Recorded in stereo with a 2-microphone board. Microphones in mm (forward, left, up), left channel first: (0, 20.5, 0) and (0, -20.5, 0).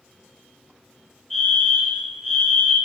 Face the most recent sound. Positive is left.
turn(degrees=15)  # may be behind; listen again after turning